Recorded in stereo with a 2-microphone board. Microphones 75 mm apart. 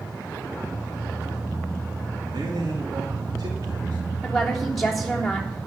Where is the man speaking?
70° right (ahead or behind), 2.5 m; by 4.0 s 60° right (ahead or behind), 3.5 m.